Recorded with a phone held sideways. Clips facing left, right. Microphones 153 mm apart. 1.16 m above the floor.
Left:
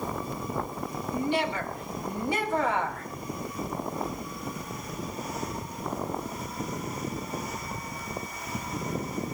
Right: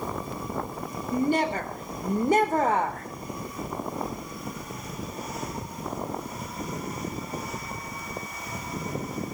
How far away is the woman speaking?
About 3.5 m.